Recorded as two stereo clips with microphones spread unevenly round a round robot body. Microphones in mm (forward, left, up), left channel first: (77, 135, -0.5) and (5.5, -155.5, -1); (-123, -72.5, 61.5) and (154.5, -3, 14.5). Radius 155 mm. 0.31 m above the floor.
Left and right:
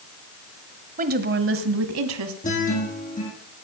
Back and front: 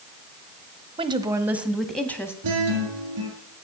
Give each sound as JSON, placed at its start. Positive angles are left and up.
{"t": 1.0, "sound": "a woman speaking", "azimuth_deg": -45, "distance_m": 1.5}
{"t": 2.4, "sound": "a guitar", "azimuth_deg": 10, "distance_m": 6.0}